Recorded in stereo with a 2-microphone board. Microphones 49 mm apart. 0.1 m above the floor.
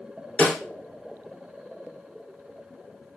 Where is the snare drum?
25° left (ahead or behind), 1.3 m.